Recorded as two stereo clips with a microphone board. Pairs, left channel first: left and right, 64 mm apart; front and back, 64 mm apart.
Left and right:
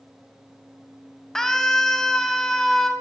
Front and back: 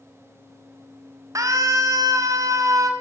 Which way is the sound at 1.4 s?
170° left.